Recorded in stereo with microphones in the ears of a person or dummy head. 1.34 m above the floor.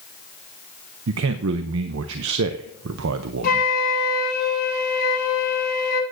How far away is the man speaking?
About 0.6 m.